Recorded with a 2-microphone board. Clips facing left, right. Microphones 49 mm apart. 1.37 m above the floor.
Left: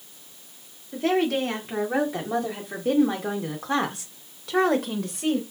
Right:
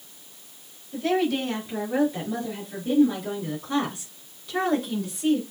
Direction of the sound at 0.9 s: 60° left (ahead or behind).